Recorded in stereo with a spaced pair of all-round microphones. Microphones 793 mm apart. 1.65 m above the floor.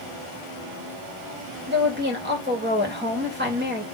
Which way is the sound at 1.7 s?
15° right (ahead or behind).